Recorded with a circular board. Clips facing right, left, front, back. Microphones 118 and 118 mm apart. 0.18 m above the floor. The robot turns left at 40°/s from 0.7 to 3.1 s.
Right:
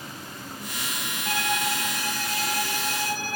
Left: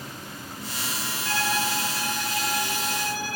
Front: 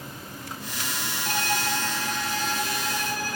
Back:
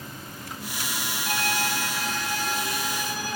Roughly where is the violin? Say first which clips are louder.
Even, front 1 dB; ahead right.